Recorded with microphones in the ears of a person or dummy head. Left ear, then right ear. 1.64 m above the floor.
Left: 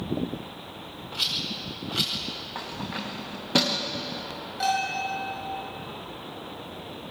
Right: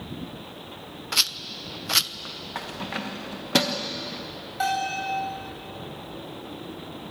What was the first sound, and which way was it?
A rattle, 65° right (ahead or behind).